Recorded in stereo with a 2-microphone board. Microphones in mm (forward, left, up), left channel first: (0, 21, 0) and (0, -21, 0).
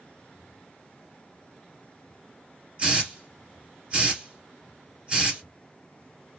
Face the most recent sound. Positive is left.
turn(degrees=-25)  # may be behind; listen again after turning